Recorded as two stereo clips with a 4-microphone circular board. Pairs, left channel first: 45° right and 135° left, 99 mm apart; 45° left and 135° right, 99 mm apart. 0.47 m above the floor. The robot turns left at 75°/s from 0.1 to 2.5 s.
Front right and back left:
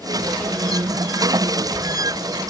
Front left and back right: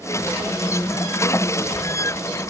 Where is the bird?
I don't hear a bird.